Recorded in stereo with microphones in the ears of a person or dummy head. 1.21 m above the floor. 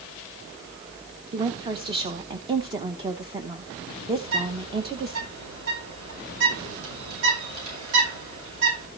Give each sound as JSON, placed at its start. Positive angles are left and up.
{"t": 1.3, "sound": "a woman speaking", "side_deg": -20, "distance_m": 0.9}
{"t": 4.2, "sound": "a bird", "side_deg": -75, "distance_m": 8.0}